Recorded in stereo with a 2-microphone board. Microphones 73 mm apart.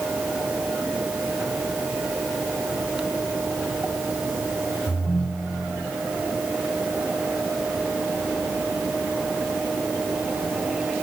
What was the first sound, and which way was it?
A ringtone, 55° left (ahead or behind).